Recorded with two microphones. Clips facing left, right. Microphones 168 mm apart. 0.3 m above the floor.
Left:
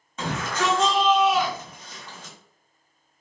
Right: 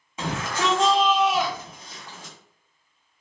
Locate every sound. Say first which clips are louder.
0.2 s a shout: even; 15° right (ahead or behind), 1.6 m